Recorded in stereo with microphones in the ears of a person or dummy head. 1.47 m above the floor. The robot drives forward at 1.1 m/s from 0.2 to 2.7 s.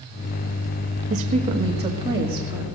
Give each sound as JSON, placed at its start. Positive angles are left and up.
{"t": 1.1, "sound": "a woman speaking", "side_deg": -45, "distance_m": 1.6}